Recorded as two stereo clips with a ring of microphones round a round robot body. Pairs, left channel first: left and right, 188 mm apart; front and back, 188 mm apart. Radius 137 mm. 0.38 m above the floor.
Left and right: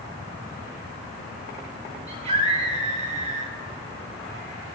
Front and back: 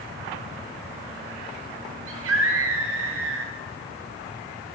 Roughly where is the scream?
Behind right.